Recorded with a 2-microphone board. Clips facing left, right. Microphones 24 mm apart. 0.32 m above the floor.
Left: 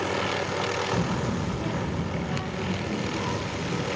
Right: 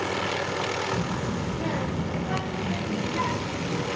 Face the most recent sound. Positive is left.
turn(degrees=-75)  # may be behind; listen again after turning